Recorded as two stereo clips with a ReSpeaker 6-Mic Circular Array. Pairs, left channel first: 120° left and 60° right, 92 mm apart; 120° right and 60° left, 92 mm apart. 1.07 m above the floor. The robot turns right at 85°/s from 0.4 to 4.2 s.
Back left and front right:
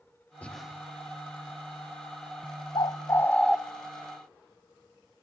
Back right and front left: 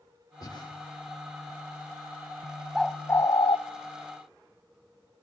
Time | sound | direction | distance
0.4 | breathing | 165° right | 2.5 m
2.8 | a bird | 145° left | 0.6 m